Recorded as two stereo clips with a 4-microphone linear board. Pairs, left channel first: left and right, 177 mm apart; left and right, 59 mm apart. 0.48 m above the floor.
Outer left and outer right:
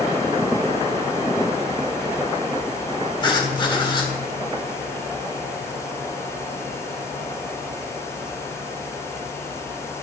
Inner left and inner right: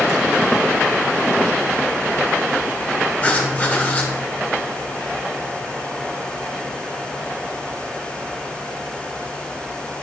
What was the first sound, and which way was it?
Writing, 25° left (ahead or behind).